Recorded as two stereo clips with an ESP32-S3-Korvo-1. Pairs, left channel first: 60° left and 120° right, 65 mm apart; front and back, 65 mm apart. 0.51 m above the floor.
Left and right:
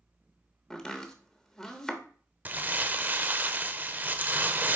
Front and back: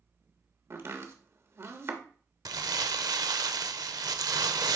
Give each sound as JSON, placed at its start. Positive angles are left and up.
{"t": 0.7, "sound": "chopping", "azimuth_deg": 145, "distance_m": 1.0}
{"t": 2.5, "sound": "crumpling", "azimuth_deg": 180, "distance_m": 0.5}